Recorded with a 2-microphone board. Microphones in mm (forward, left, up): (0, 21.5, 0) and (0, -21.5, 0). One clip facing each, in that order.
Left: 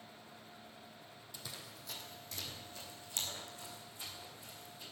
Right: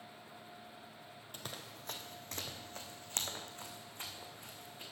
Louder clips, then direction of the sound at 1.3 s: Right 3 dB; 45° right (ahead or behind).